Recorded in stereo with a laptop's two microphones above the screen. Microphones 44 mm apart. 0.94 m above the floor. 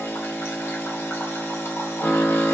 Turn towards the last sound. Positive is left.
turn(degrees=65)  # may be behind; listen again after turning